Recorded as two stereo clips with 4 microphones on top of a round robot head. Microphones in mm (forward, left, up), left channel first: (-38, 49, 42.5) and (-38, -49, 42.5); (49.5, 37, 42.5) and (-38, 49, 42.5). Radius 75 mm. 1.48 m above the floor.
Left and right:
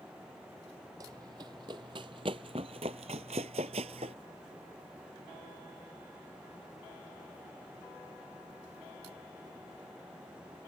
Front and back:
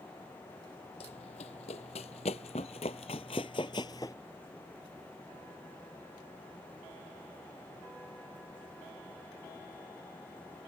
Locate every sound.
1.0 s running footsteps: 25° right; by 4.2 s 70° right